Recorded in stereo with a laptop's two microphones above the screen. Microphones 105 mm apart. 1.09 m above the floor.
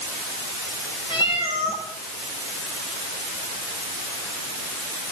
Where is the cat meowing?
55° left (ahead or behind), 7 m.